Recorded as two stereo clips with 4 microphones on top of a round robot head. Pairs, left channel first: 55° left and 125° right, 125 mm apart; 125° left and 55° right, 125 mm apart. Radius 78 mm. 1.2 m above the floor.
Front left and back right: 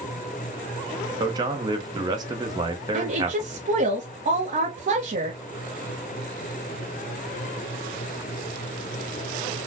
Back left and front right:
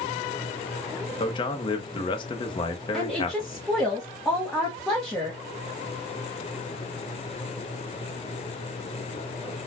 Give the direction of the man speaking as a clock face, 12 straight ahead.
6 o'clock.